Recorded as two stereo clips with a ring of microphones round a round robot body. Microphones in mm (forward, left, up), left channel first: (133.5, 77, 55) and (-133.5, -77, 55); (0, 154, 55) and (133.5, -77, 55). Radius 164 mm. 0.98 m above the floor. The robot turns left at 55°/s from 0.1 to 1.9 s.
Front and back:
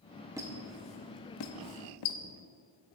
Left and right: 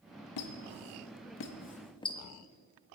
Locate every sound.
0.4 s a squeak: 130° left, 0.5 m; by 2.2 s 45° left, 0.5 m